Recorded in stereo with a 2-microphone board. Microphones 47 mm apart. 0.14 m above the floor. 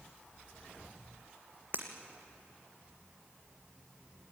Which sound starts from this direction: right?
Breaking glass, at 1.7 s.